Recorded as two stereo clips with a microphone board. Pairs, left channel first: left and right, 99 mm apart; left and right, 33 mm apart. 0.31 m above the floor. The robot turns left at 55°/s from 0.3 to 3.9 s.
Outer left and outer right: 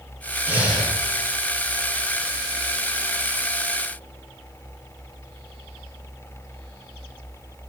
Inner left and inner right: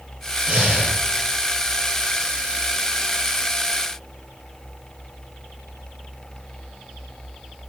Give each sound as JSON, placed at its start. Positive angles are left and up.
{"t": 0.5, "sound": "breathing", "side_deg": -20, "distance_m": 6.0}